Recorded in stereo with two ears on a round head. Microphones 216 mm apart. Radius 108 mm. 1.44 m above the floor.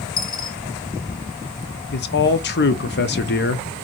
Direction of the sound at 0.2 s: 20° left (ahead or behind).